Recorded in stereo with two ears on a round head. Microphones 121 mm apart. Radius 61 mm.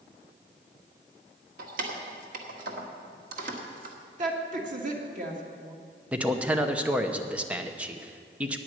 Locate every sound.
1.6 s keys jangling: 70° right (ahead or behind), 1.6 m
4.2 s a woman speaking: 60° right (ahead or behind), 2.0 m
6.1 s a man speaking: 10° right (ahead or behind), 0.9 m